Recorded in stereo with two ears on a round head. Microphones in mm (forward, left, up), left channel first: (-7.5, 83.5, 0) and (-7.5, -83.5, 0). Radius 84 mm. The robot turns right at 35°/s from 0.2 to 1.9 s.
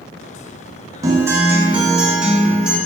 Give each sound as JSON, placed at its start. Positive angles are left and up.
{"t": 1.0, "sound": "a guitar", "side_deg": -15, "distance_m": 0.6}